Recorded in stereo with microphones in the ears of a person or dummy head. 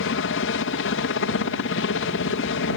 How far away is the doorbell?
I don't hear a doorbell.